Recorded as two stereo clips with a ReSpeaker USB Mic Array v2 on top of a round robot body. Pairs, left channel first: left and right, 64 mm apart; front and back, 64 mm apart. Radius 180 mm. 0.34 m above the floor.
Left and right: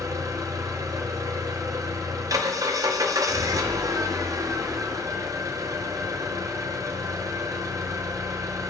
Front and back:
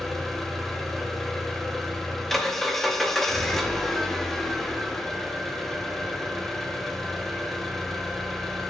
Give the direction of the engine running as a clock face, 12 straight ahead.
3 o'clock.